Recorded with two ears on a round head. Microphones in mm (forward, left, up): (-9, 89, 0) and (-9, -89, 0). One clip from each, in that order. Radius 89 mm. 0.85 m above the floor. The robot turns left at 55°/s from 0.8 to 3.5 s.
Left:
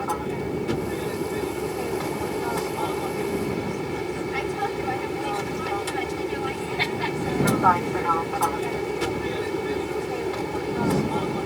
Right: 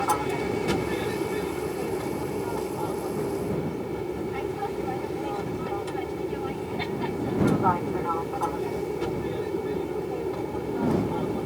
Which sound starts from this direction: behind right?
An aircraft, at 0.0 s.